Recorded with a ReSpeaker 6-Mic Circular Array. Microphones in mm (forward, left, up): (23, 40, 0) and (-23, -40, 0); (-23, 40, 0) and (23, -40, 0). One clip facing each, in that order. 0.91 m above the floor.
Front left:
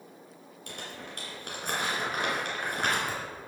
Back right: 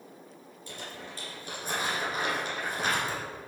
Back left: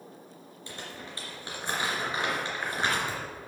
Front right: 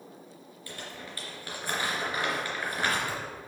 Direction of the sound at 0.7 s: 55° left.